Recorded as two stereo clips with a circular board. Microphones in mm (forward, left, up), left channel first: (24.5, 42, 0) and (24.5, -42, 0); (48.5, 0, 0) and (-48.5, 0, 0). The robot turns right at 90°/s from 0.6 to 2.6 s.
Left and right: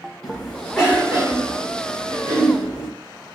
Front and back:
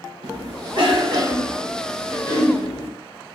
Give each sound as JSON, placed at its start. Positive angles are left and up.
{"t": 0.2, "sound": "a cough", "azimuth_deg": 170, "distance_m": 2.0}